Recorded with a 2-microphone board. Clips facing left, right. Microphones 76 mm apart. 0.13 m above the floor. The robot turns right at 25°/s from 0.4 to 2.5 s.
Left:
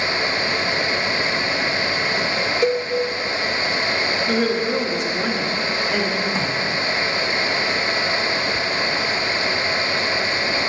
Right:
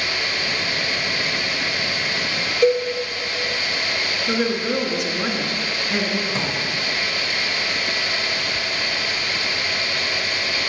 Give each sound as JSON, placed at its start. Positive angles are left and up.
{"t": 2.6, "sound": "a cowbell", "side_deg": 5, "distance_m": 0.8}
{"t": 4.3, "sound": "a woman speaking", "side_deg": -15, "distance_m": 1.2}
{"t": 6.3, "sound": "a drawer", "side_deg": 0, "distance_m": 2.5}